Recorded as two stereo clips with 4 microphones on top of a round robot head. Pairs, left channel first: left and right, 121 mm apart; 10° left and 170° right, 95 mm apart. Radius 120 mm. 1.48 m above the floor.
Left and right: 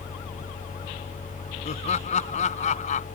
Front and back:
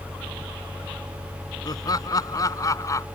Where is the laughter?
60° left; by 3.0 s 70° left.